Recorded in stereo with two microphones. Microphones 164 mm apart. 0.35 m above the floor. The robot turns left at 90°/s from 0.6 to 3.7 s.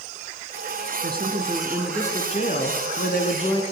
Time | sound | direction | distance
1.0 | a woman speaking | 105° right | 3.5 m